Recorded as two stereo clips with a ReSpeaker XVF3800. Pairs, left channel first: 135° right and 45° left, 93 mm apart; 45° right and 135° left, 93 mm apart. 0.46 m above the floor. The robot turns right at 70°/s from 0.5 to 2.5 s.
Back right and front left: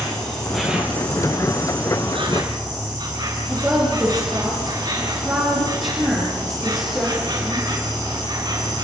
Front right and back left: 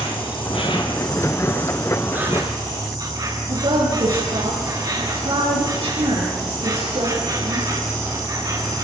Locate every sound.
0.0 s an insect: 50° right, 7.5 m; by 8.8 s 90° left, 7.5 m
3.5 s a woman speaking: 135° left, 10 m